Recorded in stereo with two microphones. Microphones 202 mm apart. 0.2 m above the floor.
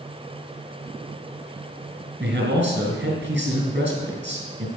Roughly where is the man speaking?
Right.